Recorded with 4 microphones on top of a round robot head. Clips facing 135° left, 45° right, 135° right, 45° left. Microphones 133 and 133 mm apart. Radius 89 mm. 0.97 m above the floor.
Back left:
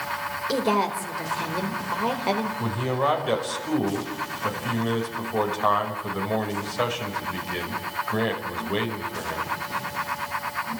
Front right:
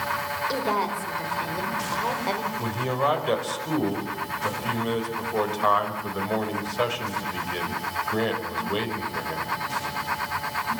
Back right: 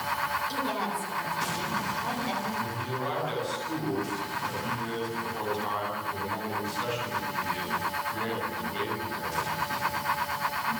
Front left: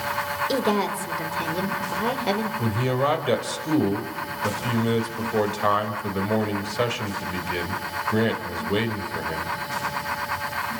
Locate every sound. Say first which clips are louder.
0.5 s a woman speaking: back left 4 dB, front left 8 dB; 65° left, 4 m
2.6 s a man speaking: back left 1 dB, front left 9 dB; 45° left, 5.5 m